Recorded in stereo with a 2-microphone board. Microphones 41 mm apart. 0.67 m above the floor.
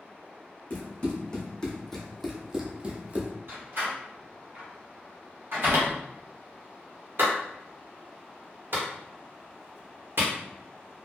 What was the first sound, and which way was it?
Running footsteps, 30° left (ahead or behind).